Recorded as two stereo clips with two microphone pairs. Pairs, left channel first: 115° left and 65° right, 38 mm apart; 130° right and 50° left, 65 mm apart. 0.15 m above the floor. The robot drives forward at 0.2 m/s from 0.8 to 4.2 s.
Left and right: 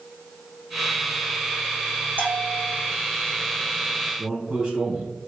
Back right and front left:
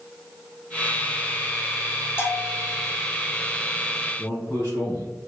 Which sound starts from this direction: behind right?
A man speaking, at 4.2 s.